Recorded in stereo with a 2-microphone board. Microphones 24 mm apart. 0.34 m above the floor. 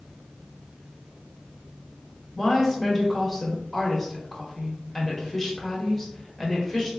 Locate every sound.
2.4 s a woman speaking: 10° left (ahead or behind), 0.9 m